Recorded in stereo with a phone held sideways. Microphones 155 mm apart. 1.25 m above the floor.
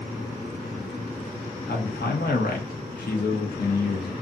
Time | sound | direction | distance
1.7 | a man speaking | 75° left (ahead or behind) | 0.8 m